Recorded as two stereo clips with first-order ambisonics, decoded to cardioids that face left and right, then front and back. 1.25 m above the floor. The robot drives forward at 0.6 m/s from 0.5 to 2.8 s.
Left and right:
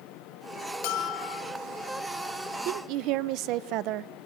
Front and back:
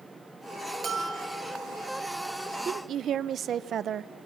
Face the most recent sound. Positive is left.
turn(degrees=-120)